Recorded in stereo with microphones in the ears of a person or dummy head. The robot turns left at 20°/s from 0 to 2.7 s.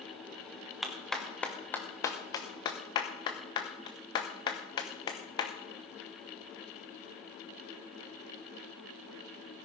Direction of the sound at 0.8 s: Centre (ahead or behind).